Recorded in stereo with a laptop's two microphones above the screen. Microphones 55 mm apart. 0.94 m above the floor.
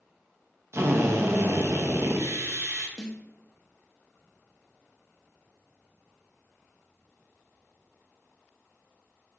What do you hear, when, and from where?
0.7 s a drill: 55° right (ahead or behind), 0.6 m
3.0 s a snare drum: 10° left (ahead or behind), 0.6 m